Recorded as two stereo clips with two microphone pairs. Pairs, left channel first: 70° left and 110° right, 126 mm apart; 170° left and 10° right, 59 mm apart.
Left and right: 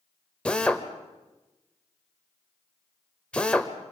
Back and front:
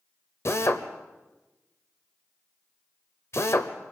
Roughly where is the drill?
Behind left.